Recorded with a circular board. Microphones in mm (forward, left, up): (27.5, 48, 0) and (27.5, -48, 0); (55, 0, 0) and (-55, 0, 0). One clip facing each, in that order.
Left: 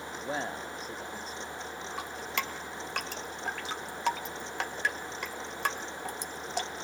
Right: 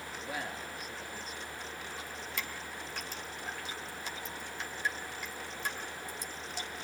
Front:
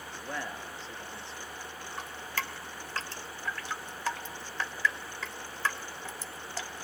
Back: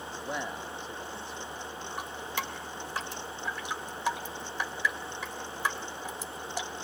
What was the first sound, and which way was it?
A man speaking, 115° left.